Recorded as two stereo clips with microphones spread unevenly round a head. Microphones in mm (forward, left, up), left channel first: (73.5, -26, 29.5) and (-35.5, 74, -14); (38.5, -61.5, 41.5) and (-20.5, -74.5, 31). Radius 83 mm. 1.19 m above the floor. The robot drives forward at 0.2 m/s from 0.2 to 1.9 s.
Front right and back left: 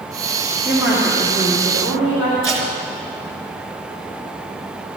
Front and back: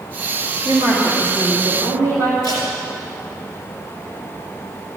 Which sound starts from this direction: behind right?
A woman speaking, at 0.7 s.